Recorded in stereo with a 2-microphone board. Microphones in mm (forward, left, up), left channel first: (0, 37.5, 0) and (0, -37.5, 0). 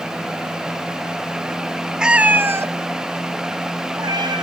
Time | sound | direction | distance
2.0 | a cat meowing | 10° right (ahead or behind) | 0.7 m